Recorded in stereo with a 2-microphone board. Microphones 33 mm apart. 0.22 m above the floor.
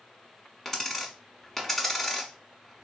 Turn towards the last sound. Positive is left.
turn(degrees=10)  # may be behind; listen again after turning